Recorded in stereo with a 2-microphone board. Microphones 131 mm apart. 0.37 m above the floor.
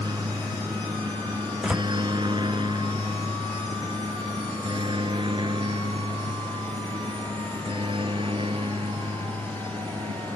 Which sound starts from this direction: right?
A helicopter, at 0.0 s.